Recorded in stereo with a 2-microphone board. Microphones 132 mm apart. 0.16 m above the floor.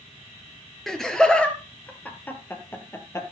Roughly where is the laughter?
Centre.